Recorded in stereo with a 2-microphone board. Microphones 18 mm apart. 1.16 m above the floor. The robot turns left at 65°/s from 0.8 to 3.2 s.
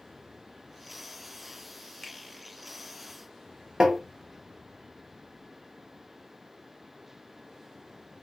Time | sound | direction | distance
2.0 | a finger snap | 20° left (ahead or behind) | 0.7 m
3.8 | tapping | 35° right (ahead or behind) | 0.5 m